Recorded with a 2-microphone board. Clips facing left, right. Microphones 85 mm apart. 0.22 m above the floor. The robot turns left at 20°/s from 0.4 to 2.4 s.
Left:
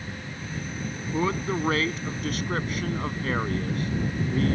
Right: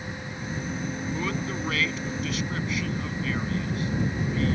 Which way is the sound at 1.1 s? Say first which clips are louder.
Left 8 dB; 30° left (ahead or behind).